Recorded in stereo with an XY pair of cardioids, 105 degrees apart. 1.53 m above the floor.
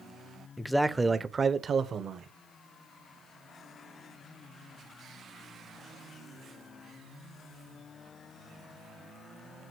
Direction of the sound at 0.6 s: 10° left.